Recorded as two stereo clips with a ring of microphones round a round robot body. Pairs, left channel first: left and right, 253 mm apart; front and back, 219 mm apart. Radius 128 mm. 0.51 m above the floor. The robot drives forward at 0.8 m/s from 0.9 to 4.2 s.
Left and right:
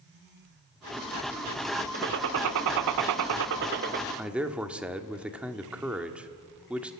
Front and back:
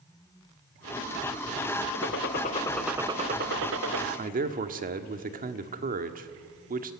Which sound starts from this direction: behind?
A man speaking, at 4.2 s.